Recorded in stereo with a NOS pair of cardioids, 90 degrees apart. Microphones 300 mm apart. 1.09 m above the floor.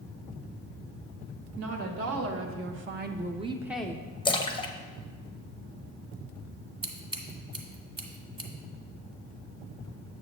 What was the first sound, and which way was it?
A woman speaking, 60° right.